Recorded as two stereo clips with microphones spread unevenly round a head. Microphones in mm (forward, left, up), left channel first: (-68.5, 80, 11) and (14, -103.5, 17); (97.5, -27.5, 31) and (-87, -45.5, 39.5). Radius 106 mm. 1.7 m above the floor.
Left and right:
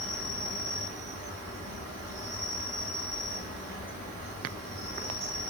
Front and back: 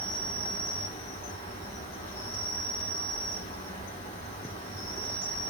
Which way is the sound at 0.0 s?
45° right.